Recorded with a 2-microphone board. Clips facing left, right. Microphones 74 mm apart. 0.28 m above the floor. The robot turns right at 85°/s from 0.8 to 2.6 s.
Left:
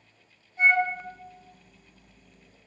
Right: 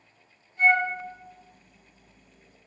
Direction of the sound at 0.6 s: 25° left (ahead or behind).